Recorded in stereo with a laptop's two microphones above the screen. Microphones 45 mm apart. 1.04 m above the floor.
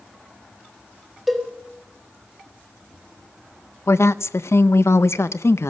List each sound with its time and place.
1.3 s a cowbell: centre (ahead or behind), 1.4 m
3.9 s a woman speaking: 75° left (ahead or behind), 0.5 m